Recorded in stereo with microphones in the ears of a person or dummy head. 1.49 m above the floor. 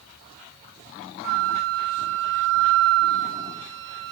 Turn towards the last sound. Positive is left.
turn(degrees=-70)  # may be behind; listen again after turning